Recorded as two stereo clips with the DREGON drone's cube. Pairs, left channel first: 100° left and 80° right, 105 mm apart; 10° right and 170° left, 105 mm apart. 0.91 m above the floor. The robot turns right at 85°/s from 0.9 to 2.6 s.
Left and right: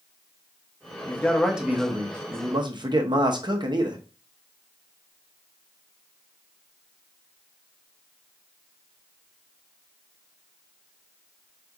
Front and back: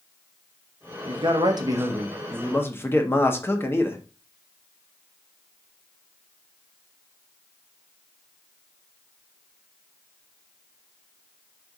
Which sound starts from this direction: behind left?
A man speaking, at 1.1 s.